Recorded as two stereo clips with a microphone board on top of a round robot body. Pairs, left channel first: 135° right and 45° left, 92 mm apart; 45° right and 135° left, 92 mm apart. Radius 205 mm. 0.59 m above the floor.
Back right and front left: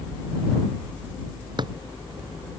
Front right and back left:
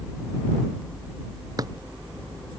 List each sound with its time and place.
1.6 s a drawer: 85° left